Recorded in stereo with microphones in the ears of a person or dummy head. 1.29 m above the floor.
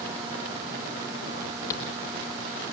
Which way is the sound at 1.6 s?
20° left (ahead or behind).